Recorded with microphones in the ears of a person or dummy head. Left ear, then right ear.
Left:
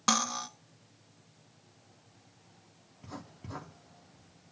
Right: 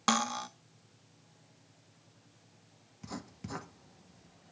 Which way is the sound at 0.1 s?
10° right (ahead or behind).